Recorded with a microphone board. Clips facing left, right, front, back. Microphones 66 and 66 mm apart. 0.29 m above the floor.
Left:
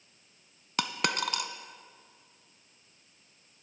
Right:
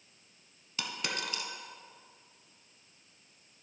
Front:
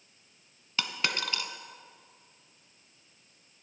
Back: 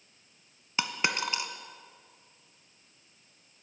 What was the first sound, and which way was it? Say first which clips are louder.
A dropped coin: left 7 dB, back 2 dB; 110° left.